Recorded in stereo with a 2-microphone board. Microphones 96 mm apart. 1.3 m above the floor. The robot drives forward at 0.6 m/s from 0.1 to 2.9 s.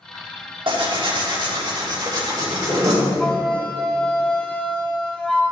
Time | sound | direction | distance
0.7 | tearing paper | 65° right (ahead or behind) | 1.6 m
3.2 | a flute | 10° left (ahead or behind) | 1.1 m